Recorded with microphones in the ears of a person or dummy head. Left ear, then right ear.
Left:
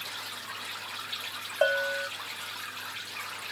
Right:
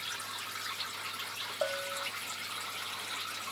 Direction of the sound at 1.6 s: 55° left (ahead or behind).